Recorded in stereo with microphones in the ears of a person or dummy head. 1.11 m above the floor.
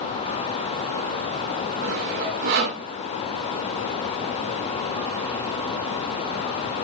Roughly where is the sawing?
Right.